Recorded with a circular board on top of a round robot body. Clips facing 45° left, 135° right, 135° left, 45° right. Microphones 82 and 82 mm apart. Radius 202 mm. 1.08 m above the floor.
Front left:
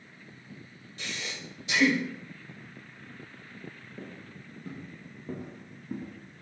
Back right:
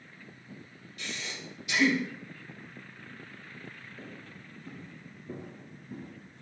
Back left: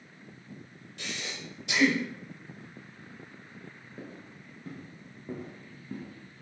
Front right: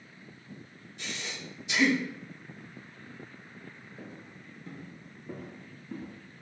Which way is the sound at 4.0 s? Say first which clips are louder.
Front left 2 dB, back left 3 dB; 90° left.